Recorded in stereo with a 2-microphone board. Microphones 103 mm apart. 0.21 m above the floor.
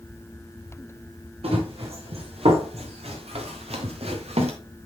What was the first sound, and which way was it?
Running footsteps, 70° right (ahead or behind).